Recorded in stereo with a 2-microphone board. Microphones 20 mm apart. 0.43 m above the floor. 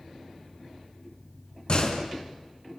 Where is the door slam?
50° left (ahead or behind), 3 m.